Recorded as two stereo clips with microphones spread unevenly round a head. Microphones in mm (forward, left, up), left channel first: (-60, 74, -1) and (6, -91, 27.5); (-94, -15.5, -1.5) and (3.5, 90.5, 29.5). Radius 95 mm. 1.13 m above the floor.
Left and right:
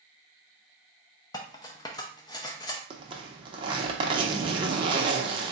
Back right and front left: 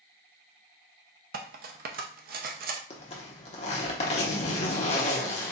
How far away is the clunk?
No clunk in this recording.